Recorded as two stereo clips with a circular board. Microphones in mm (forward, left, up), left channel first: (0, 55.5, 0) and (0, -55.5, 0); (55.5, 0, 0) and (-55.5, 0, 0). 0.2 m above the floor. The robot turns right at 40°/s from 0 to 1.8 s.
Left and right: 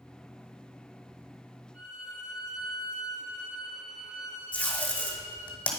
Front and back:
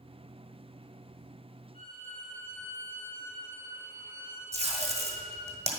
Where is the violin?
15° right, 2.5 m; by 5.5 s 10° right, 2.5 m.